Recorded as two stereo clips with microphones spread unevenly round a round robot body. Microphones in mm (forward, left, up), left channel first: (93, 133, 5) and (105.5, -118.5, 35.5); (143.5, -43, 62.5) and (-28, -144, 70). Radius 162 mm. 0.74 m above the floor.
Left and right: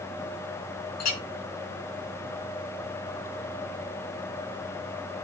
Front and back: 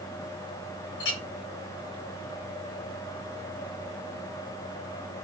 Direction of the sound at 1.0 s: 75° left.